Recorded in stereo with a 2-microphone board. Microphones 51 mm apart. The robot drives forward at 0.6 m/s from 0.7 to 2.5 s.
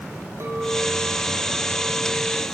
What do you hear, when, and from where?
0.4 s a clink: 60° right (ahead or behind), 5 m; by 2.4 s 50° right (ahead or behind), 5.5 m